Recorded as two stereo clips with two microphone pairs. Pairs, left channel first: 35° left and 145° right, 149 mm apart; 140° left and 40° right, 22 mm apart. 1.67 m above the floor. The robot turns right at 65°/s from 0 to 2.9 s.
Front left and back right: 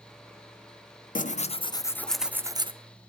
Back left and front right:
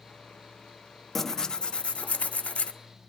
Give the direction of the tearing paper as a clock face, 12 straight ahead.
10 o'clock.